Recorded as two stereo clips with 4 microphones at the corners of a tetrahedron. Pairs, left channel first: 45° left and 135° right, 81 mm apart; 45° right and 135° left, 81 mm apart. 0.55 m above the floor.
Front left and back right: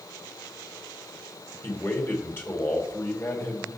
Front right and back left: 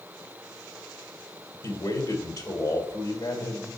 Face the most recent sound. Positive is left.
turn(degrees=-15)